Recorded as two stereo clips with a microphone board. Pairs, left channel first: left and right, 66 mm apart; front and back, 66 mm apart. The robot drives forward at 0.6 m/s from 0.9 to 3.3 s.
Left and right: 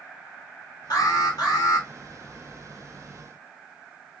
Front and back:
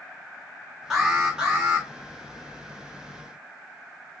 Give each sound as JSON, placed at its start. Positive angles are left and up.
{"t": 0.9, "sound": "an alarm", "azimuth_deg": 95, "distance_m": 2.5}